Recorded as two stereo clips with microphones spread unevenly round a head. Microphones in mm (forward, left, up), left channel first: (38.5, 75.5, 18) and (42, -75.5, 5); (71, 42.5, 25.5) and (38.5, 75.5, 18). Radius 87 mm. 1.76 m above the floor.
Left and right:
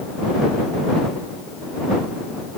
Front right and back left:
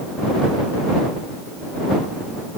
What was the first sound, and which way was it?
Only background noise.